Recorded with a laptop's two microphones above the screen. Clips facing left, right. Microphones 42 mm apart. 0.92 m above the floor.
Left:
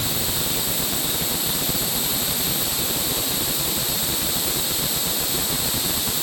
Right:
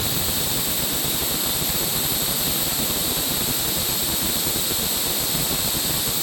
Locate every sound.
Only background noise.